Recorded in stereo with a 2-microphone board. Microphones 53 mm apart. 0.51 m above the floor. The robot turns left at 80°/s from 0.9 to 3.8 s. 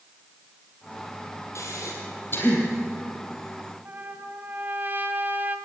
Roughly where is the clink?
No clink in this recording.